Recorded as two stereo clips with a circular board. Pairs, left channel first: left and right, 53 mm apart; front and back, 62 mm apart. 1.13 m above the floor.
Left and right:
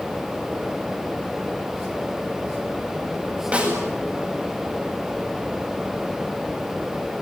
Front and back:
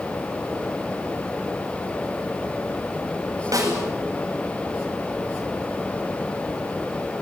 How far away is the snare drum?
About 8.5 m.